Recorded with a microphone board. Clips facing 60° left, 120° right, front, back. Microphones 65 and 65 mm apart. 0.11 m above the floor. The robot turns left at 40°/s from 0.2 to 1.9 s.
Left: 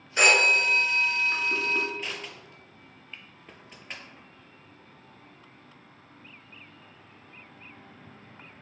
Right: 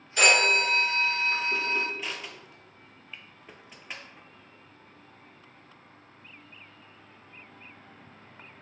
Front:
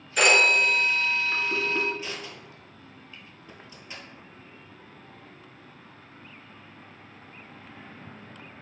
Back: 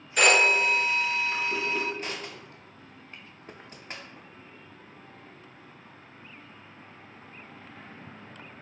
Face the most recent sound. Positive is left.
turn(degrees=150)